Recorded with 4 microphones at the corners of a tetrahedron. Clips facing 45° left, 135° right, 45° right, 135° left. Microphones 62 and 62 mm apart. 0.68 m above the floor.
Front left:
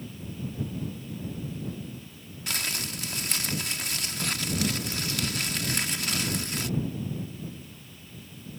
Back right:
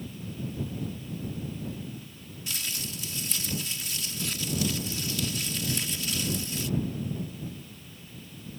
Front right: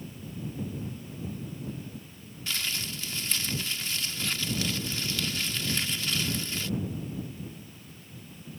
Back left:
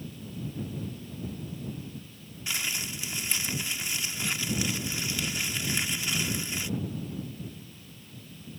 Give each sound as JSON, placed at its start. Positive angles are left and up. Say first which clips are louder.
{"t": 2.5, "sound": "crumpling", "louder": "front left 5 dB, back left 1 dB", "azimuth_deg": 65}